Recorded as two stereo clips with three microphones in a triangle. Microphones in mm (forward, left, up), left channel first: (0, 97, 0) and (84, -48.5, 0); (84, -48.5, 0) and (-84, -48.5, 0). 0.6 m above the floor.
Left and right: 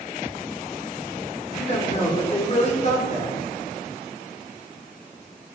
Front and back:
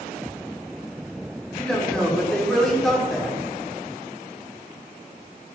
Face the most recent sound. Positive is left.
turn(degrees=85)